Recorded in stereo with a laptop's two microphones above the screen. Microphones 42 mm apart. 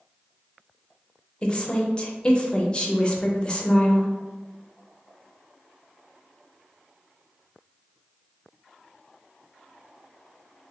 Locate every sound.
1.4 s a woman speaking: 25° left (ahead or behind), 0.7 m